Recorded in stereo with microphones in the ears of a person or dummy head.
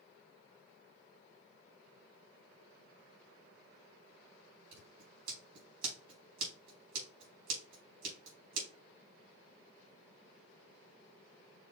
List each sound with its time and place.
4.7 s scissors: 60° right (ahead or behind), 3.5 m